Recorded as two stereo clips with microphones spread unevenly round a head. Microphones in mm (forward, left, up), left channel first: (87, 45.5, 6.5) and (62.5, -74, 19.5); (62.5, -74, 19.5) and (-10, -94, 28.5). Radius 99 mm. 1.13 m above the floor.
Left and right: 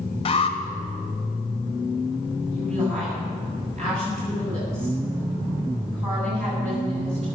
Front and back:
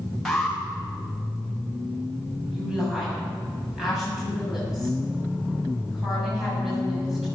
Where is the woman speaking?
80° right, 7.5 m.